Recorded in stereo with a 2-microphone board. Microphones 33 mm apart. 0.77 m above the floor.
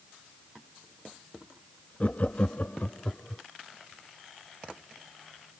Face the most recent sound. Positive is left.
turn(degrees=35)  # may be behind; listen again after turning